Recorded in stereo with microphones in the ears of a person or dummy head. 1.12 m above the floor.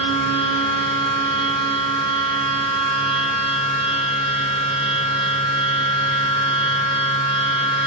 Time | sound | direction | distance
0.0 | a machine running | 20° left (ahead or behind) | 1.5 m